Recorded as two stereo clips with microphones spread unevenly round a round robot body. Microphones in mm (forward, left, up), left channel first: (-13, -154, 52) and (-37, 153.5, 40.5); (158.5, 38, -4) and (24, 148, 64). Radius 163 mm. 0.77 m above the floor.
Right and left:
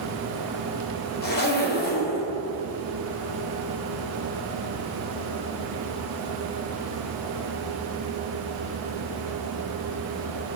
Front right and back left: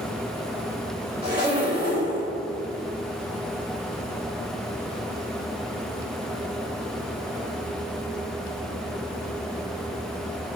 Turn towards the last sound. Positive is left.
turn(degrees=-145)